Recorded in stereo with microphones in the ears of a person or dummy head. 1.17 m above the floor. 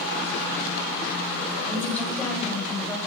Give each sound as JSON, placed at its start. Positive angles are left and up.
{"t": 1.7, "sound": "a woman speaking", "side_deg": 5, "distance_m": 7.0}